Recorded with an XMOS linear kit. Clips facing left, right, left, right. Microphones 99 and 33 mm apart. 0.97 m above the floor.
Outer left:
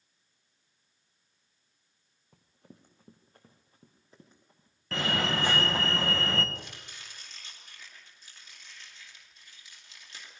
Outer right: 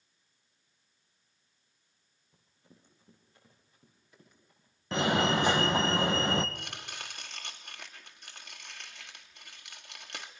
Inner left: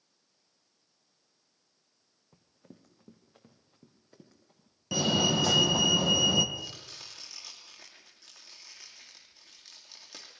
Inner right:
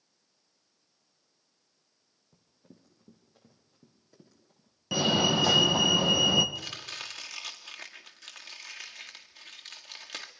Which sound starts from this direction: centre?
A fire alarm, at 4.9 s.